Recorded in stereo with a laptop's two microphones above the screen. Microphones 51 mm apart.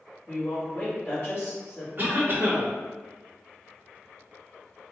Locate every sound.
0.3 s a woman speaking: 40° left (ahead or behind), 1.9 m
2.0 s a cough: 40° right (ahead or behind), 1.1 m